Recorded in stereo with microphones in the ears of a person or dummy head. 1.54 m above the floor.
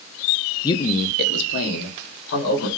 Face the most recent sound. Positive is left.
turn(degrees=80)